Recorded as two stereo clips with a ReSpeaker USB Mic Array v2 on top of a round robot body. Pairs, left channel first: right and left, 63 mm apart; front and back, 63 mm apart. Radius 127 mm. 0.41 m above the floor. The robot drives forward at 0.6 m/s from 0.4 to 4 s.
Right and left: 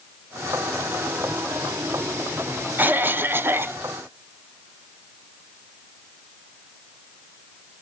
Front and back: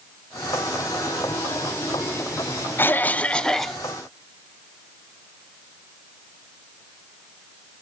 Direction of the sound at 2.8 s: 40° left.